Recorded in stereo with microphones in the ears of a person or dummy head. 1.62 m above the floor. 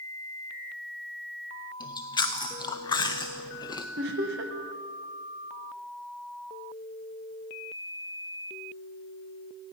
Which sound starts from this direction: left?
Chewing, at 1.8 s.